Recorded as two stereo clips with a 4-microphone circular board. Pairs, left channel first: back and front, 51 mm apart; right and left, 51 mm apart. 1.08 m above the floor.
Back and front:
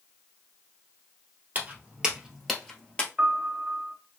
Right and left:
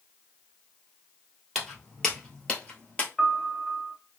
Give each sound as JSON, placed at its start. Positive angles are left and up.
{"t": 1.6, "sound": "footsteps", "azimuth_deg": -5, "distance_m": 1.2}
{"t": 3.2, "sound": "a piano", "azimuth_deg": -5, "distance_m": 0.9}